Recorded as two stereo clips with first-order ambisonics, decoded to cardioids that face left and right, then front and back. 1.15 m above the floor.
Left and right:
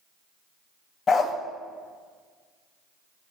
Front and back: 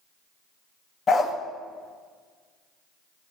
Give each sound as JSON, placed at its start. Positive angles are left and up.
{"t": 1.1, "sound": "a dog barking", "azimuth_deg": 45, "distance_m": 0.5}